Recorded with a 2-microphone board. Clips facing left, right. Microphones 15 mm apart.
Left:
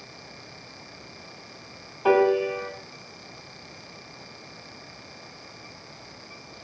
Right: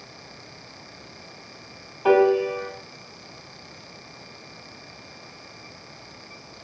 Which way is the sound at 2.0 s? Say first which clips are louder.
Right 2 dB; 5° right (ahead or behind).